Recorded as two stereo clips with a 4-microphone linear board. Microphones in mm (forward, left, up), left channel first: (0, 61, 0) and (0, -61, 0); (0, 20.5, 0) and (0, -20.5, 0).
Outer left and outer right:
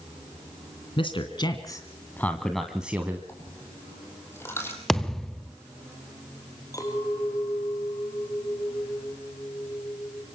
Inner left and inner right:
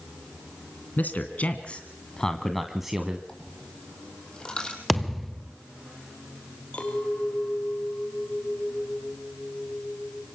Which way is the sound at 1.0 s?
45° left (ahead or behind).